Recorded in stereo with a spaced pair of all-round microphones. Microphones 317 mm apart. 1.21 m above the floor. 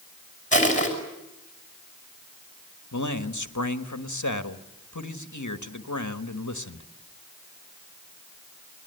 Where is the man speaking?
65° left (ahead or behind), 1.5 m.